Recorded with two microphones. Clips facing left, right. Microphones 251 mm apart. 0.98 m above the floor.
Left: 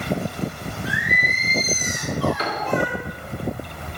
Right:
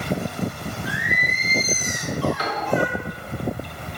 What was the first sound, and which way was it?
Singing, 70° left (ahead or behind).